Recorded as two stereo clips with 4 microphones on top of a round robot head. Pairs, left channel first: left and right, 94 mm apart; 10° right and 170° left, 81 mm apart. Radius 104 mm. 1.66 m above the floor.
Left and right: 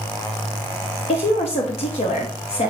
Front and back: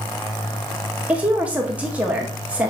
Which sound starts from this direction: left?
A woman speaking, at 1.1 s.